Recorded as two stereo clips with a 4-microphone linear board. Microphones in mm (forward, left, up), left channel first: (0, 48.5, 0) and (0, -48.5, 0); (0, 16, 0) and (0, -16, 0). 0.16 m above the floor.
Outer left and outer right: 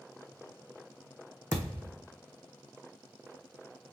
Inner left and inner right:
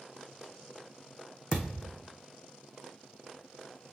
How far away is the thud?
About 1.7 m.